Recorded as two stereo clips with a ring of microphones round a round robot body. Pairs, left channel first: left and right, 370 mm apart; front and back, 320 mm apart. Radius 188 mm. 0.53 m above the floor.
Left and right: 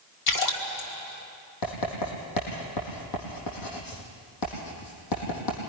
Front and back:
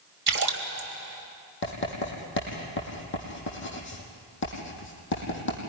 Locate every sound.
0.3 s a splash: 125° left, 3 m
1.6 s writing: 55° left, 5.5 m